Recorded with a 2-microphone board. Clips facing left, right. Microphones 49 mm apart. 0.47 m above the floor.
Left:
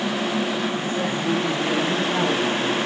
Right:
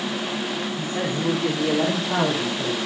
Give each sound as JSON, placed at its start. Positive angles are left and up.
{"t": 0.8, "sound": "a man speaking", "side_deg": -35, "distance_m": 6.0}